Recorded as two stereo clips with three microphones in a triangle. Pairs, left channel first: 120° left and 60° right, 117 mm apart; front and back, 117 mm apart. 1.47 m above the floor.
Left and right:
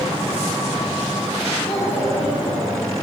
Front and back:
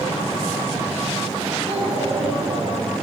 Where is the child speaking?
155° left, 5.5 m; by 2.8 s 145° left, 5 m.